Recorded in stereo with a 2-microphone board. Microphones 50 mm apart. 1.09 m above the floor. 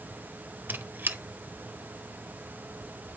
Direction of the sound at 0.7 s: 40° right (ahead or behind).